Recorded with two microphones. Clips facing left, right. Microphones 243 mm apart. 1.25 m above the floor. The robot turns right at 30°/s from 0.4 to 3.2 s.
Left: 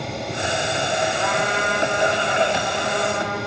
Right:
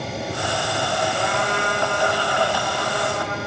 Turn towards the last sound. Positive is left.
turn(degrees=5)